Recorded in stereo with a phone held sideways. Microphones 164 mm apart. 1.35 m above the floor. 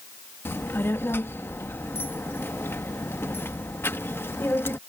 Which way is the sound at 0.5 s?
15° left (ahead or behind).